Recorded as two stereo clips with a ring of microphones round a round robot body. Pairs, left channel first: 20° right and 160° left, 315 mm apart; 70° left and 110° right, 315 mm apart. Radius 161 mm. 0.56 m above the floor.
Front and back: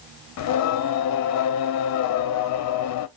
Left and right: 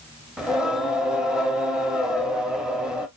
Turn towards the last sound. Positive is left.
turn(degrees=-25)